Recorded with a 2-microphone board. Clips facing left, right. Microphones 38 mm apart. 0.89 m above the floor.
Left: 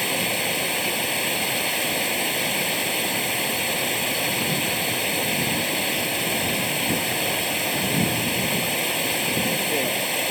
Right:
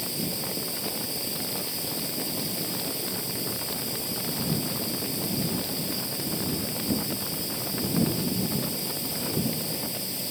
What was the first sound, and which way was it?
Running water, 60° left (ahead or behind).